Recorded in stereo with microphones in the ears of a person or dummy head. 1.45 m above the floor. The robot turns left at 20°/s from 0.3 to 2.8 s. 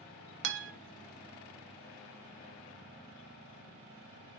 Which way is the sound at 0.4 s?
65° right (ahead or behind).